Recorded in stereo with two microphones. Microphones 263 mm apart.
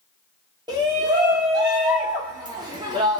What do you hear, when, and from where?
0.7 s a shout: 15° right (ahead or behind), 0.9 m